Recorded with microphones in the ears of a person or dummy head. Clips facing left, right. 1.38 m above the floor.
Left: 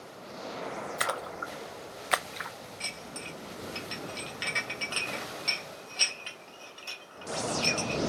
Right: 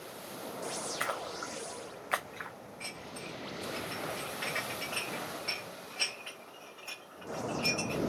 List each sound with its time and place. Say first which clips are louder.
1.0 s a splash: left 3 dB; 60° left (ahead or behind), 0.6 m
2.8 s dishes clattering: right 1 dB; 55° left (ahead or behind), 1.9 m